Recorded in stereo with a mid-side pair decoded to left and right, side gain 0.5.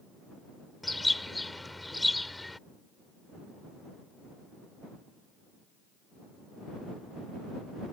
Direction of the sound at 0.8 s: 10° left.